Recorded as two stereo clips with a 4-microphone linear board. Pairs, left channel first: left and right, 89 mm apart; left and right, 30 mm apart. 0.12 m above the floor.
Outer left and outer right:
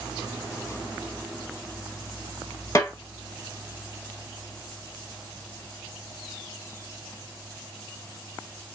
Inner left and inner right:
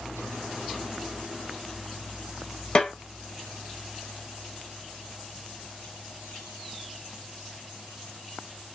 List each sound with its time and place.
2.8 s a snare drum: 40° left (ahead or behind), 1.0 m